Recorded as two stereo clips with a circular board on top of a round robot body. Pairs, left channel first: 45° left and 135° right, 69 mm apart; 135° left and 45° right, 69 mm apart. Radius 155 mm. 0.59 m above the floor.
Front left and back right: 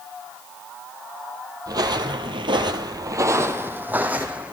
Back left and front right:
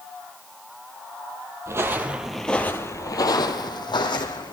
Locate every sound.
1.7 s footsteps: 100° right, 1.4 m; by 4.5 s 150° left, 2.5 m